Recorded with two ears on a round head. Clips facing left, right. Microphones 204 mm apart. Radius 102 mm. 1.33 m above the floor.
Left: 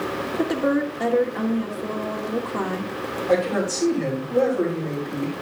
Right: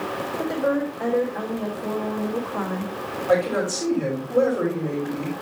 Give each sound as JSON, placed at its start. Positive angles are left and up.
{"t": 0.4, "sound": "a woman speaking", "side_deg": 40, "distance_m": 2.0}
{"t": 3.3, "sound": "a man speaking", "side_deg": -10, "distance_m": 5.5}